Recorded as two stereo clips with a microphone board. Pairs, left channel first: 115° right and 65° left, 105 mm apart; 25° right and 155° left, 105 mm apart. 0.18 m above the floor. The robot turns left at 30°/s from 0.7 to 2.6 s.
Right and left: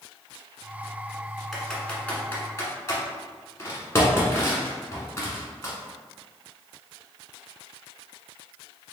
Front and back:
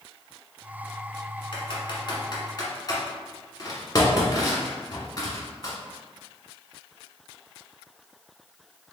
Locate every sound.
1.5 s typing on a keyboard: 25° right, 1.2 m; by 5.7 s 55° right, 1.2 m